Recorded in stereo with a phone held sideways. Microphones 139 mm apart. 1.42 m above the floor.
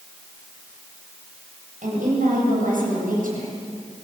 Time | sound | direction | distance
1.8 | a woman speaking | 70° right (ahead or behind) | 7.5 m